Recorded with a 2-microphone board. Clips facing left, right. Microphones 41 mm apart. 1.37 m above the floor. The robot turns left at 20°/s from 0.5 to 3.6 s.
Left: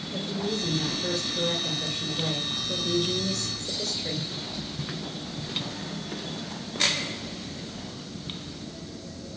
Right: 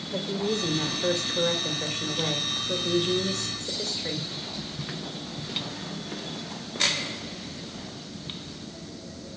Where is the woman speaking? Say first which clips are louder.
Right 3 dB; 90° right, 1.8 m; by 4.3 s 150° right, 1.8 m.